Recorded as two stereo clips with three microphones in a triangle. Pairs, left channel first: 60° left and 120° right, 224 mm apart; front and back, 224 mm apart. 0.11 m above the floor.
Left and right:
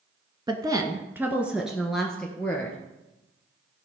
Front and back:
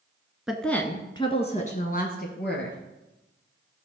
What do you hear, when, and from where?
0.5 s a woman speaking: 100° right, 1.2 m; by 2.8 s 20° right, 2 m